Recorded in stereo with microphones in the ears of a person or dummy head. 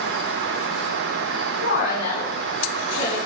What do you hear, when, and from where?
1.6 s a woman speaking: 70° left (ahead or behind), 1.1 m; by 3.1 s 85° left, 1.8 m